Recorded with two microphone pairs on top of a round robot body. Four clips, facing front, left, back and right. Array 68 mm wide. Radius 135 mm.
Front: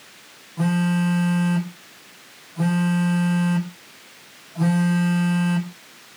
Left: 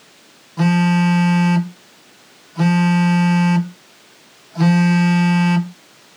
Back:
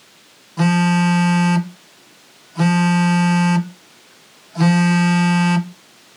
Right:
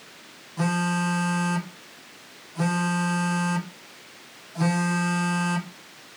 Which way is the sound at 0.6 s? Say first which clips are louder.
Left 9 dB, back 5 dB; 155° left.